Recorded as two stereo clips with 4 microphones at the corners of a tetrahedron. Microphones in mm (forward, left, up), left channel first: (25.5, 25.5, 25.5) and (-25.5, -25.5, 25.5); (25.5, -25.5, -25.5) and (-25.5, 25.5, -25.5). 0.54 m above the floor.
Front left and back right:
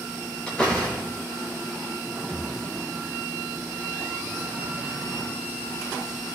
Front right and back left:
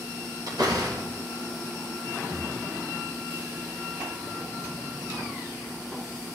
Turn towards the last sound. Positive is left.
turn(degrees=115)